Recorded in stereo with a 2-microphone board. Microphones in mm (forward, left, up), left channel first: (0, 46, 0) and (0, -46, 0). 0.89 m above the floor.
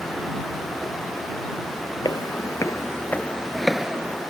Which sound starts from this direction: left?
Footsteps, at 2.0 s.